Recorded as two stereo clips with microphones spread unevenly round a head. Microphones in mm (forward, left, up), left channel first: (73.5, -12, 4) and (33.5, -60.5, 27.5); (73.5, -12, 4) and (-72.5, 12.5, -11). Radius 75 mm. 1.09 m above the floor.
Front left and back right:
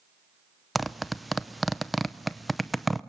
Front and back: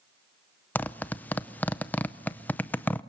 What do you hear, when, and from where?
0.8 s a zipper: 65° left, 0.6 m